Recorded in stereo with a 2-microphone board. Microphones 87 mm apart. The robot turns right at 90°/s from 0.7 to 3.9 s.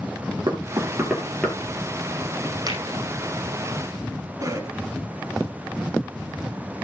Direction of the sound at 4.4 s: 40° right (ahead or behind).